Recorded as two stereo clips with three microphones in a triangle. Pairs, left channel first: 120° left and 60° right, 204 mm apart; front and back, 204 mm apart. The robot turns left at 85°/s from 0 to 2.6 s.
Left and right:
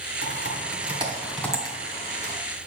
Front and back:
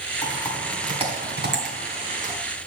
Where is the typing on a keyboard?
55° right, 2.5 m; by 2.3 s 125° left, 2.5 m.